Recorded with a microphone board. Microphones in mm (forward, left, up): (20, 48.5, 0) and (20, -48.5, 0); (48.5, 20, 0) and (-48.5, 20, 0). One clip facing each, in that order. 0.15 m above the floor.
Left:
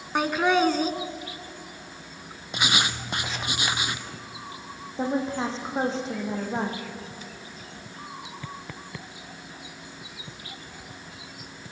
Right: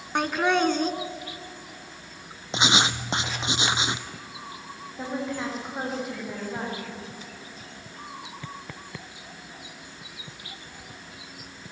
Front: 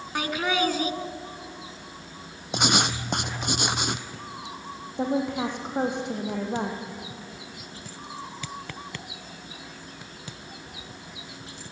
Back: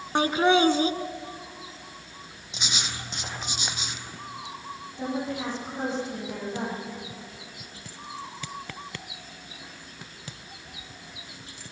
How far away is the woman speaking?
About 6 m.